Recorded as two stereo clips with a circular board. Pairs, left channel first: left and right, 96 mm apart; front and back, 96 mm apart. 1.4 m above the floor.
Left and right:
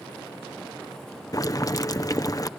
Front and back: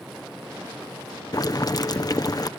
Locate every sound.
1.3 s boiling: 45° left